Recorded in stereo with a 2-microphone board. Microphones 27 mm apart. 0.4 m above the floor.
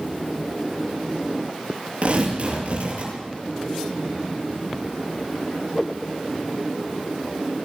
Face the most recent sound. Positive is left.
turn(degrees=-50)  # may be behind; listen again after turning